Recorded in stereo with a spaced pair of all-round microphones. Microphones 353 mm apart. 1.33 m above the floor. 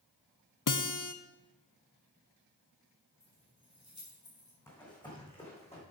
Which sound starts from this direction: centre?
Running footsteps, at 4.7 s.